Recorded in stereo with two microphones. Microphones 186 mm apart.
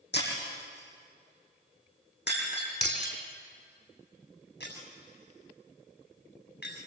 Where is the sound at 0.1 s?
75° left (ahead or behind), 6.5 m.